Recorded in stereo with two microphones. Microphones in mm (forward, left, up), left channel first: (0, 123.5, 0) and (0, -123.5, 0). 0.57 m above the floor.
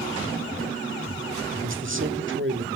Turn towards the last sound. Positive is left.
turn(degrees=-55)  # may be behind; listen again after turning